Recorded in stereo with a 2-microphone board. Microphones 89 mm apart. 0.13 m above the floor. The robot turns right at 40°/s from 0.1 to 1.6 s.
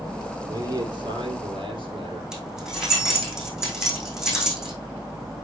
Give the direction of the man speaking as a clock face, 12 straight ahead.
5 o'clock.